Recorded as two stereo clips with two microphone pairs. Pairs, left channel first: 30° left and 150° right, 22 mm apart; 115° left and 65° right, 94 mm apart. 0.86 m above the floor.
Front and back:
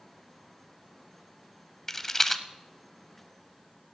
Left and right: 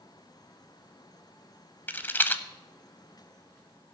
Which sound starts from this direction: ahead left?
A rattle, at 1.9 s.